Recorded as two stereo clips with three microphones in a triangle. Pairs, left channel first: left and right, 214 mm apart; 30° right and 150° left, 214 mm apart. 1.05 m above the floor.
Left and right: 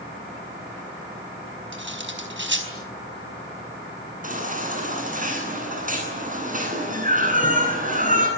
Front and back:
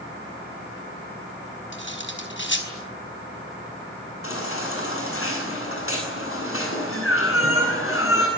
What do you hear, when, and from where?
1.7 s cutlery clinking: 60° right, 4.5 m
4.2 s a baby crying: 40° right, 9 m